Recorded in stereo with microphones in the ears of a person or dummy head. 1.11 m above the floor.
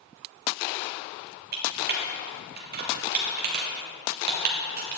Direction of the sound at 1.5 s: 45° right (ahead or behind).